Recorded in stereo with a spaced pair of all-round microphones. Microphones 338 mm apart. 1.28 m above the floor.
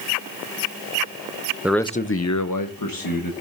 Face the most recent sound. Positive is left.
turn(degrees=80)